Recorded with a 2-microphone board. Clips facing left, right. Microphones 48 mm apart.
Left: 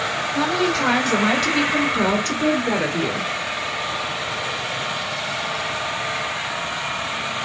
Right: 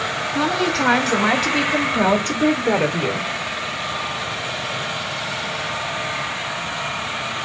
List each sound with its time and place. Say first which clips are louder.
0.3 s a woman speaking: right 1 dB; centre (ahead or behind), 2 m; by 3.3 s 15° right (ahead or behind), 1.4 m